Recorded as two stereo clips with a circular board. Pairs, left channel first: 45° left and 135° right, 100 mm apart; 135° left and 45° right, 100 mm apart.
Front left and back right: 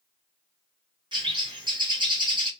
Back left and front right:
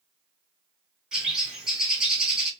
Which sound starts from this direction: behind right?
A bird, at 1.1 s.